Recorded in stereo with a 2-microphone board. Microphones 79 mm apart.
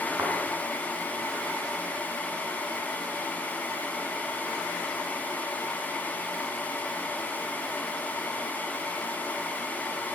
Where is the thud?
30° right (ahead or behind), 7.5 m.